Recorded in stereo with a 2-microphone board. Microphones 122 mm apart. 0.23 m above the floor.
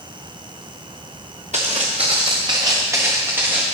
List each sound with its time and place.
1.5 s footsteps: 70° right (ahead or behind), 1.5 m; by 3.6 s 15° right (ahead or behind), 2.5 m